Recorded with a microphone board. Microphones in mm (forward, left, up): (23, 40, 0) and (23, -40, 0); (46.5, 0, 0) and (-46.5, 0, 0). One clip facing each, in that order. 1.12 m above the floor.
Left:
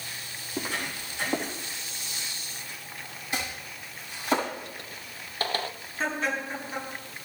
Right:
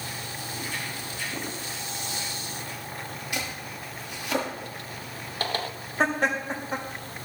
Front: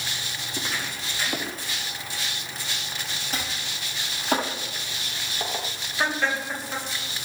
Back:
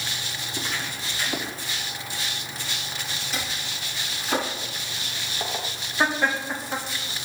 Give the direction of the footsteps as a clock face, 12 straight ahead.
9 o'clock.